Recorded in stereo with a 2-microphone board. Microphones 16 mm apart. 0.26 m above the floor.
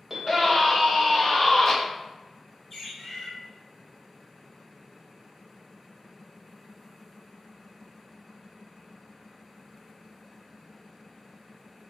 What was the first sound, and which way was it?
A scream, 20° right (ahead or behind).